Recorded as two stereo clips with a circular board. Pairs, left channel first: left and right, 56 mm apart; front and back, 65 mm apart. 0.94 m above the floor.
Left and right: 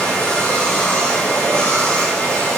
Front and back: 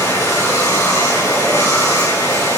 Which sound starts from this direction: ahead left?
Running water, at 0.0 s.